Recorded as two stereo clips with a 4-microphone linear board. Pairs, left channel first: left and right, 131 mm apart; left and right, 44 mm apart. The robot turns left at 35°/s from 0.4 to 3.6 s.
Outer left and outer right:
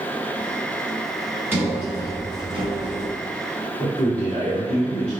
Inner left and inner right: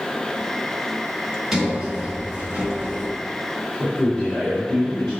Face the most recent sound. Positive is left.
turn(degrees=10)  # may be behind; listen again after turning